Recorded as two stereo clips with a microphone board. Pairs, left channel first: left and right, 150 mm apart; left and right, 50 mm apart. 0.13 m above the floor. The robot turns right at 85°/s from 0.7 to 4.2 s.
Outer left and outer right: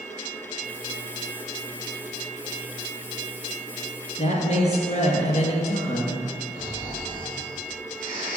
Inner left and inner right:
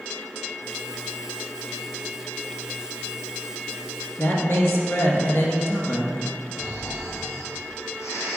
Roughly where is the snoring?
Left.